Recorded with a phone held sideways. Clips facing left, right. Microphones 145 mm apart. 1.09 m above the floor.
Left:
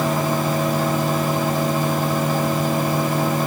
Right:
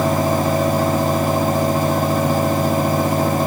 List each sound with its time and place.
0.0 s a fan: 45° right (ahead or behind), 1.2 m